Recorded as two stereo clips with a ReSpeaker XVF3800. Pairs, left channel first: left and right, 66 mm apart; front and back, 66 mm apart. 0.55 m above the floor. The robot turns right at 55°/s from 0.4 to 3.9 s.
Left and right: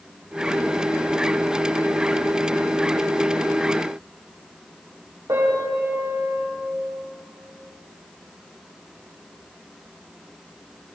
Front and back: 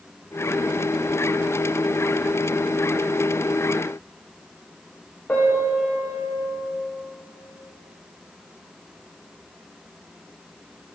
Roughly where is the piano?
Ahead right.